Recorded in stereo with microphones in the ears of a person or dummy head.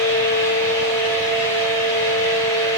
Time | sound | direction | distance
0.0 | a fan | 15° left (ahead or behind) | 1.6 m